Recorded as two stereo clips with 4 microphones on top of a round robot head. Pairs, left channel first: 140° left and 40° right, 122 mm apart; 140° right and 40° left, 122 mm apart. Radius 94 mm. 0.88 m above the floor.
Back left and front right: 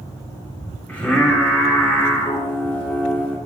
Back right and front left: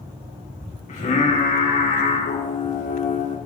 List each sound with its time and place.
0.9 s singing: 140° right, 2.0 m